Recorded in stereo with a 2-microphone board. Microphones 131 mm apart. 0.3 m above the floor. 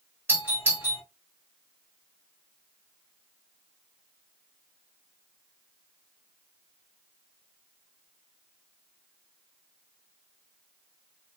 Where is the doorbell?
15° right (ahead or behind), 1.8 m.